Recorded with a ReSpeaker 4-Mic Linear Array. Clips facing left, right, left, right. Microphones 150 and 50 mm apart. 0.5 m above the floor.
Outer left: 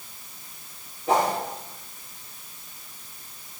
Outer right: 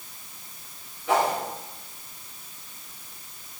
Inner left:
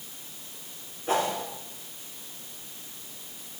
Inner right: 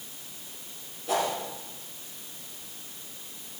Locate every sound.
1.1 s a whoosh: 40° left (ahead or behind), 3 m